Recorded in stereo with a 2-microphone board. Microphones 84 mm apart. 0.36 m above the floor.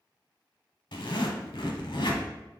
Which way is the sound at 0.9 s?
75° left (ahead or behind).